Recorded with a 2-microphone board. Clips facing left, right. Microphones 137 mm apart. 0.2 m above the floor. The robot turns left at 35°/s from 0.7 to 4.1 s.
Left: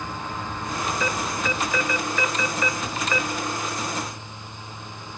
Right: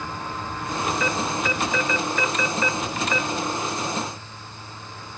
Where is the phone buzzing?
No phone buzzing in this recording.